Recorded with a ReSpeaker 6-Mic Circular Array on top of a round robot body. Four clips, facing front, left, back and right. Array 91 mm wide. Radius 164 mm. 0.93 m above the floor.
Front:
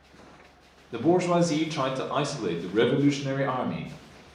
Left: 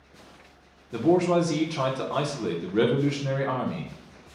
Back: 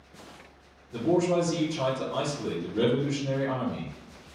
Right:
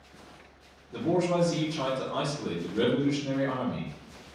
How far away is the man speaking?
About 0.8 m.